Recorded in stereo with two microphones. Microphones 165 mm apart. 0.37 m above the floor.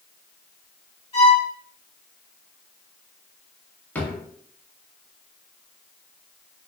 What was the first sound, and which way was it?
A violin, 30° left (ahead or behind).